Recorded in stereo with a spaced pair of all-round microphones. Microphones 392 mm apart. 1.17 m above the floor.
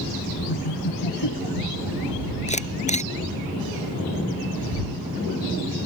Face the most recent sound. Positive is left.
turn(degrees=15)  # may be behind; listen again after turning